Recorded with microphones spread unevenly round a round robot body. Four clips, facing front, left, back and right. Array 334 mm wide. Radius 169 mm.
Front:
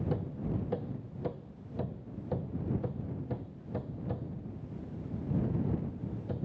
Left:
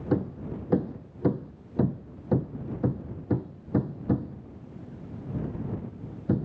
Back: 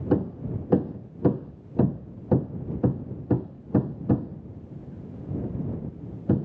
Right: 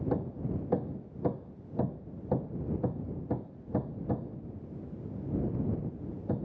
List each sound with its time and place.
0.1 s hammering: 160° left